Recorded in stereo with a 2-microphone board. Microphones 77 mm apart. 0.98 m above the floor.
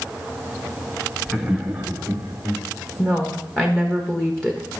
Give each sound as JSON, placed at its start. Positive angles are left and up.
{"t": 1.3, "sound": "laughter", "side_deg": 0, "distance_m": 0.8}
{"t": 3.0, "sound": "a woman speaking", "side_deg": 10, "distance_m": 1.2}